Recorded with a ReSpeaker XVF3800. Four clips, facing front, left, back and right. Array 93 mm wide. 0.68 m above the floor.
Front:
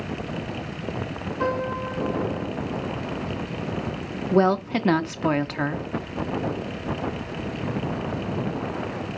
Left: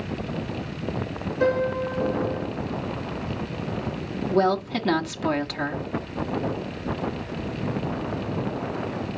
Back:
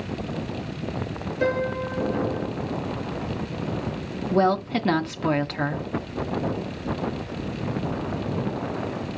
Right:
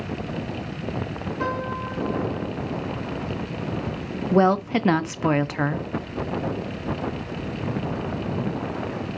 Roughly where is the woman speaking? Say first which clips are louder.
Right 3 dB, front 1 dB; right.